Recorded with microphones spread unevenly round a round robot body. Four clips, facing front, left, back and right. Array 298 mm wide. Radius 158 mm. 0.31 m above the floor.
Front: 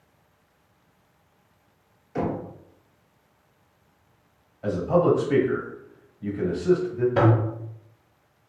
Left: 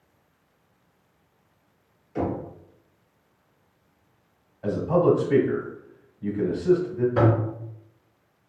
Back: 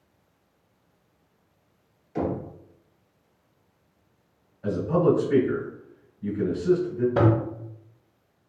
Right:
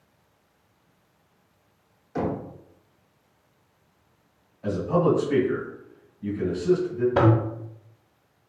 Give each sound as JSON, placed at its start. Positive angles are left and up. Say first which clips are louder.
{"t": 2.1, "sound": "knocking", "louder": "even, even", "azimuth_deg": -45, "distance_m": 0.9}
{"t": 4.6, "sound": "a man speaking", "louder": "left 2 dB, front 1 dB", "azimuth_deg": 35, "distance_m": 1.8}
{"t": 7.2, "sound": "a toilet flushing", "louder": "right 1 dB, front 1 dB", "azimuth_deg": -100, "distance_m": 0.8}